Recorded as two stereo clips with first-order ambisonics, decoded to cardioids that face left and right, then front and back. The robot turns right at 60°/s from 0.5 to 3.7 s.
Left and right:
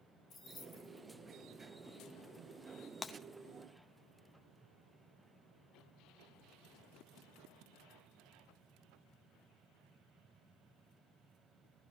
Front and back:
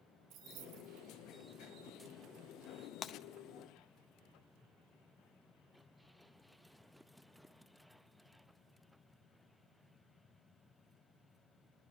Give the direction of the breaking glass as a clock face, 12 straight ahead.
11 o'clock.